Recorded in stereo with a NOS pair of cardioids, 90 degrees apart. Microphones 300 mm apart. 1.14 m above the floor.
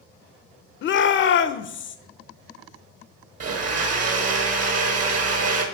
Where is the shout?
40° left, 0.5 m.